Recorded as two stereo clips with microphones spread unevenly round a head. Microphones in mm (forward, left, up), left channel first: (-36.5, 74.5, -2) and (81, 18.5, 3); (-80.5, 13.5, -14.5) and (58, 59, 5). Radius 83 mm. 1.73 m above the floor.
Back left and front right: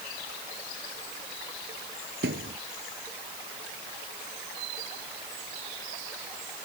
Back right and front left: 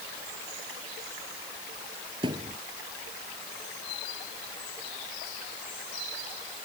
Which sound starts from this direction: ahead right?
A thud, at 2.2 s.